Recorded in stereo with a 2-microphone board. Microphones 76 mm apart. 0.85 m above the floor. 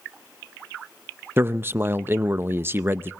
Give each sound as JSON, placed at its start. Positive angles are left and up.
{"t": 1.4, "sound": "a man speaking", "side_deg": -30, "distance_m": 0.5}